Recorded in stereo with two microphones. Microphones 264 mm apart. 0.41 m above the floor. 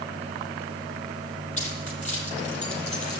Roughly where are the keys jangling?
Left.